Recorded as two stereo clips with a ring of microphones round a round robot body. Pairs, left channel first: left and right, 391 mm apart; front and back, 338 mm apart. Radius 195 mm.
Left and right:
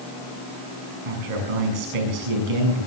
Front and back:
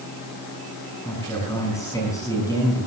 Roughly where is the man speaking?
Right.